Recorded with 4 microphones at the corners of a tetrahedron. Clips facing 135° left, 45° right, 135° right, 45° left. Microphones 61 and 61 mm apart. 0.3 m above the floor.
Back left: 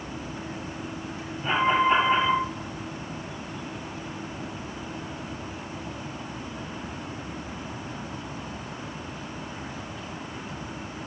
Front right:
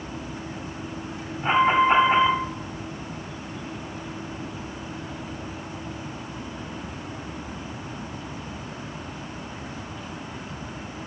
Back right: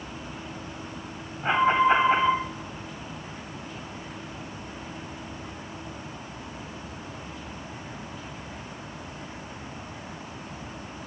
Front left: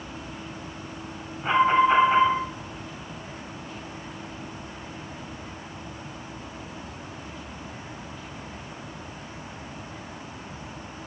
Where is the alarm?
85° right, 1.8 m.